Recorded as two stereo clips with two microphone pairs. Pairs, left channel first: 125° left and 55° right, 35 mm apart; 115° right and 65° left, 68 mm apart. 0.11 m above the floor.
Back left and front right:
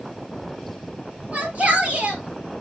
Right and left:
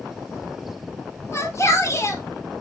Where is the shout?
85° right, 2 m.